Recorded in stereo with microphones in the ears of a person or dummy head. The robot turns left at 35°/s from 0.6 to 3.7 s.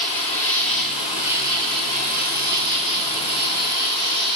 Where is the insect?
15° left, 7 m; by 4.4 s 95° right, 7 m.